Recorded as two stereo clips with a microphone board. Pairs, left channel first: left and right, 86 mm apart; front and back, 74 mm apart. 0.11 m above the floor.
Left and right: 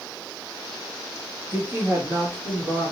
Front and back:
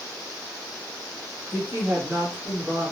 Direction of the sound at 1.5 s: 150° right.